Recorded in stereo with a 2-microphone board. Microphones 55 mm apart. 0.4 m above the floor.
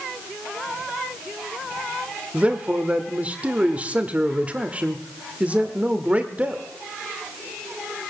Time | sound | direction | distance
2.3 | a man speaking | 20° right (ahead or behind) | 1.3 m